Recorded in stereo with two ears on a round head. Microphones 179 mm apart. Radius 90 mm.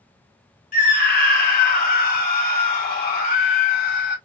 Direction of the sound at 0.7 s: 45° left (ahead or behind).